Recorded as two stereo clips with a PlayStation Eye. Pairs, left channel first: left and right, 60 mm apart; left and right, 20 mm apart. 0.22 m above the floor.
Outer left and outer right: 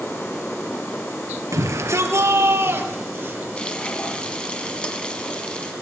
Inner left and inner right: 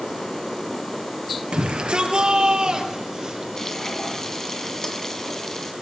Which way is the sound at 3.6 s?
15° left (ahead or behind).